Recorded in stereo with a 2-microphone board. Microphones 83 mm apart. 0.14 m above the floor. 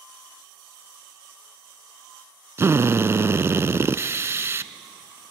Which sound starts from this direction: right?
A drill, at 2.6 s.